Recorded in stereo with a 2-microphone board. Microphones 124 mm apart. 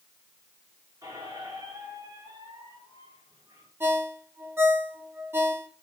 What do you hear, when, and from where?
1.0 s a squeak: 30° right (ahead or behind), 3.5 m
3.8 s a ringtone: 15° right (ahead or behind), 1.2 m